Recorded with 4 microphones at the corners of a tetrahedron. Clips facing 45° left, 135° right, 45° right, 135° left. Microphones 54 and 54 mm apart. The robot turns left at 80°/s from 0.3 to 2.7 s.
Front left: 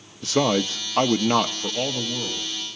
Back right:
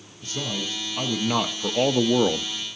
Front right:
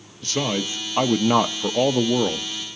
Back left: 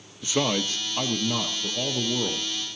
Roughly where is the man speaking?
Ahead left.